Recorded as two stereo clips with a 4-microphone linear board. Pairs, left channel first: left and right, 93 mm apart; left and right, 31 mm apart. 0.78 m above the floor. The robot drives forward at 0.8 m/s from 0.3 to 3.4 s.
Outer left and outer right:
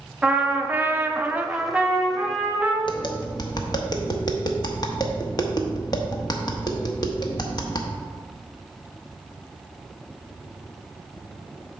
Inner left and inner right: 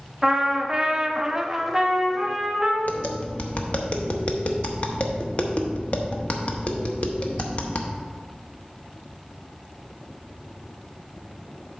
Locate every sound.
0.2 s a trumpet: 15° right (ahead or behind), 0.7 m; by 2.8 s 5° right (ahead or behind), 1.5 m
2.9 s tapping: 55° left (ahead or behind), 0.8 m; by 7.9 s 45° left (ahead or behind), 0.9 m